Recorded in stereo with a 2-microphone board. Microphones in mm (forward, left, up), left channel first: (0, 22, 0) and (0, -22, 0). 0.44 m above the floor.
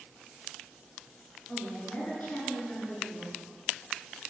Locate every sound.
1.5 s a woman speaking: 35° left (ahead or behind), 7 m